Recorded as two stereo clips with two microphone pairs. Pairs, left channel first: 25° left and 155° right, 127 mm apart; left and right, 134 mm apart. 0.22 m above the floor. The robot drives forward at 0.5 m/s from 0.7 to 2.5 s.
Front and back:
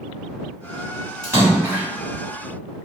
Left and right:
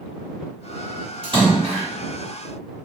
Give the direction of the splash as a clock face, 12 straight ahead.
3 o'clock.